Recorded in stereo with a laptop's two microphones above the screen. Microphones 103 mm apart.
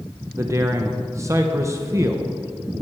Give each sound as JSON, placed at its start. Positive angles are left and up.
{"t": 0.3, "sound": "a man speaking", "side_deg": -30, "distance_m": 0.5}